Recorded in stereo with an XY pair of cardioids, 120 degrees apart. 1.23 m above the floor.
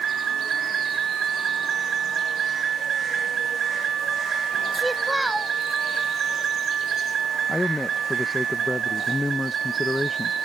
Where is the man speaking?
15° left.